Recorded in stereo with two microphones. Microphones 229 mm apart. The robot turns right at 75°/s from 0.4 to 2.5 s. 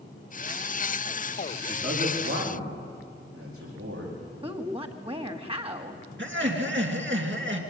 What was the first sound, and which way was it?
A man speaking, 45° right (ahead or behind).